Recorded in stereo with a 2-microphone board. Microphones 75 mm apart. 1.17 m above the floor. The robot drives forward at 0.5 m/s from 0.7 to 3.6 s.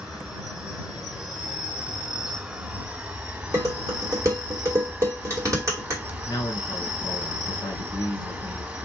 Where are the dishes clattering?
40° right (ahead or behind), 2 m.